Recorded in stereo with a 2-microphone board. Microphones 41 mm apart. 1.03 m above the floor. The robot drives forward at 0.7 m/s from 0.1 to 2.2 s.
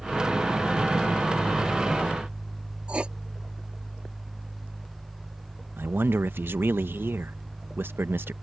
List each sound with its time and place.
2.9 s writing: 30° right (ahead or behind)
5.8 s a man speaking: 60° right (ahead or behind)